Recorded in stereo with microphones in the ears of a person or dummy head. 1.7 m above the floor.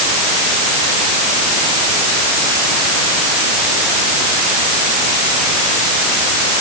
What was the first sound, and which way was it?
Only background noise.